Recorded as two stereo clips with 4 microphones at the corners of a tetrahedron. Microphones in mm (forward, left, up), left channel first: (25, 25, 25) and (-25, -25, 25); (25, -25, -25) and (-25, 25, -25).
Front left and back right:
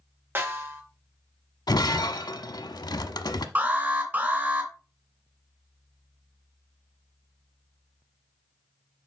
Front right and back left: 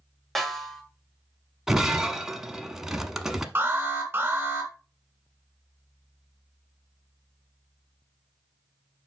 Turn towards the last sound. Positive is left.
turn(degrees=175)